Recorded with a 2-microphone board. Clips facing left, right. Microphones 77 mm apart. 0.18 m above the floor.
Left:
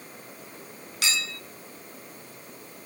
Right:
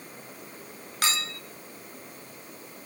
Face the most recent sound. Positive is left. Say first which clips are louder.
# right 2 dB
turn(degrees=-45)  # may be behind; listen again after turning